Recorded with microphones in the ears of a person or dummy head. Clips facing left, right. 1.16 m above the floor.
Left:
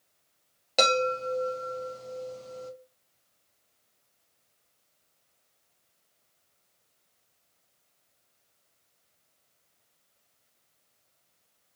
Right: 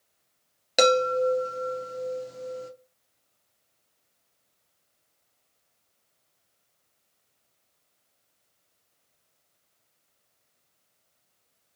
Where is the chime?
15° right (ahead or behind), 0.6 m.